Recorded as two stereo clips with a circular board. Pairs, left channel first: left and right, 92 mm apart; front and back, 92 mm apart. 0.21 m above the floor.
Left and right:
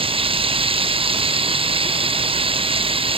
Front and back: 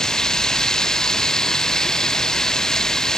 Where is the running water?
85° right.